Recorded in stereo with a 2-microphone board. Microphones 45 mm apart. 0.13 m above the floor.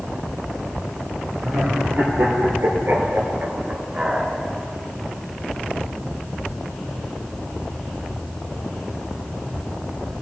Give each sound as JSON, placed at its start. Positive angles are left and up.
{"t": 1.4, "sound": "laughter", "side_deg": -60, "distance_m": 4.5}